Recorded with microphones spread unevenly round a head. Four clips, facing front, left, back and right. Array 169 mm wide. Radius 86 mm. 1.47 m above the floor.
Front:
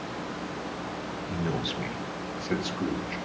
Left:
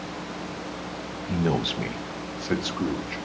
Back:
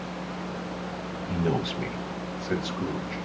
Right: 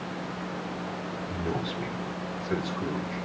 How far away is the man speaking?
About 1.4 m.